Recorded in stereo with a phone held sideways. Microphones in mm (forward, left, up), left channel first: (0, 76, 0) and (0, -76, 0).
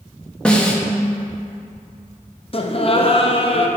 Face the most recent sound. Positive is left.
turn(degrees=40)  # may be behind; listen again after turning